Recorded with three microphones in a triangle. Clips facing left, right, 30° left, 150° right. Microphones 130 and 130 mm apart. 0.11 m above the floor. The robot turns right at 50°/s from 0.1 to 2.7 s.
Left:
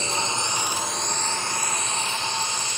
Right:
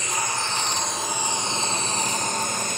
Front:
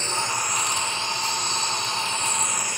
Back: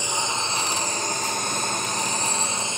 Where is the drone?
140° left; by 2.8 s 90° right.